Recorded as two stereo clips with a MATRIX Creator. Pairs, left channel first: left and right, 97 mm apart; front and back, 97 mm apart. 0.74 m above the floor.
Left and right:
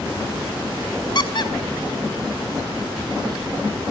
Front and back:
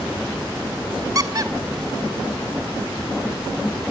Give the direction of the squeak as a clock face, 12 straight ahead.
8 o'clock.